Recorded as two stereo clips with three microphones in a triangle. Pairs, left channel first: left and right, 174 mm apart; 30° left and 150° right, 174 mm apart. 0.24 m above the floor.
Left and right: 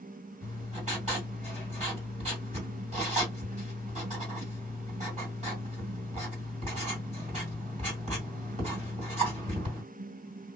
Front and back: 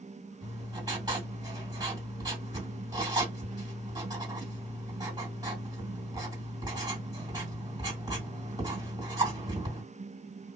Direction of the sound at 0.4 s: 95° right.